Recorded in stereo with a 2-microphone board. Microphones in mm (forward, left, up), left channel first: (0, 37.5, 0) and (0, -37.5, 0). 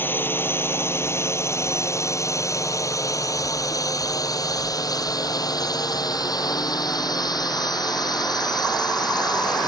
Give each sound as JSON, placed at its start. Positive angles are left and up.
{"t": 0.0, "sound": "a drone", "side_deg": 30}